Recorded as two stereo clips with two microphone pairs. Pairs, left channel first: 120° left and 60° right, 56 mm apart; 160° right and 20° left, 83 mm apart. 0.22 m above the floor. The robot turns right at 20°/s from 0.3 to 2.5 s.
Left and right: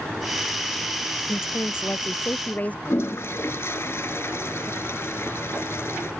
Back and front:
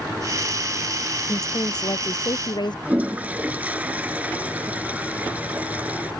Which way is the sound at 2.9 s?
85° left.